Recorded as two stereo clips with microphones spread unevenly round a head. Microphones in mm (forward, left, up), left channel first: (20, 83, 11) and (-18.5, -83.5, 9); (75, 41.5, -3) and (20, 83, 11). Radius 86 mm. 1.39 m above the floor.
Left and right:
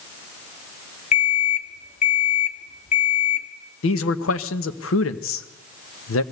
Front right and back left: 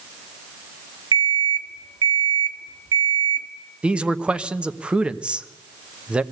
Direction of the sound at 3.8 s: 70° left.